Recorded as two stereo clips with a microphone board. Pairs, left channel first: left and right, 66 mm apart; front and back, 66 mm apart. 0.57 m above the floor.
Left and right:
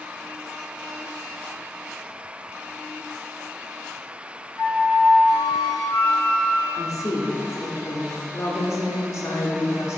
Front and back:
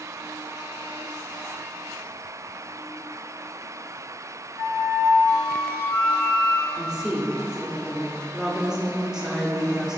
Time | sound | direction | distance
4.5 | a flute | 75° left | 1.6 m
6.8 | a woman speaking | 105° left | 1.3 m